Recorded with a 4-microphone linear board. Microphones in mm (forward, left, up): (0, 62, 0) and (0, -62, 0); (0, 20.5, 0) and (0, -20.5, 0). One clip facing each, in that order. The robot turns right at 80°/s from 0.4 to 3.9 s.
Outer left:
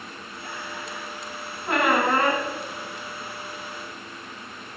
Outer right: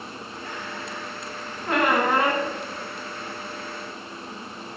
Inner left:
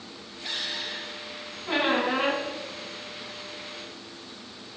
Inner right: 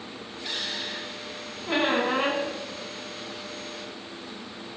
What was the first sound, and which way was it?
A squeak, 5° left (ahead or behind).